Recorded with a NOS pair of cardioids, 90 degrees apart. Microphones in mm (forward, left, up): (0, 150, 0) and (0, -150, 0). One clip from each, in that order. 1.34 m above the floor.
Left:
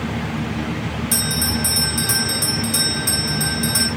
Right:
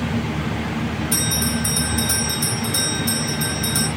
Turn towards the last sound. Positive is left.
turn(degrees=65)